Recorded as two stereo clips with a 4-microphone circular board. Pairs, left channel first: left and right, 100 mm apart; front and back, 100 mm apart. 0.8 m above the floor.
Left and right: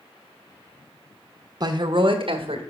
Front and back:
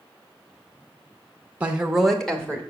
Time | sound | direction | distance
1.6 | a woman speaking | 115° right | 0.6 m